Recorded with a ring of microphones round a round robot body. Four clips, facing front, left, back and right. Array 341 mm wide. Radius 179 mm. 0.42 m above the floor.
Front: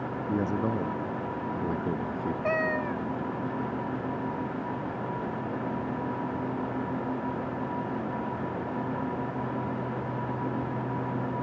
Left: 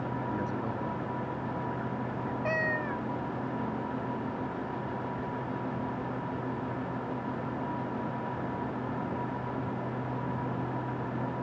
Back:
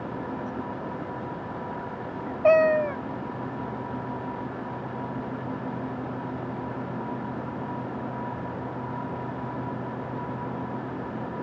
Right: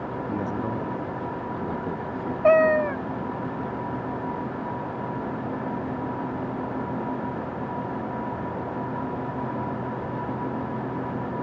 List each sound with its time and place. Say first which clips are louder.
0.3 s a man speaking: right 5 dB, front 5 dB; 20° right; by 2.3 s 30° right
2.4 s a cat meowing: right 16 dB, back 12 dB; 130° right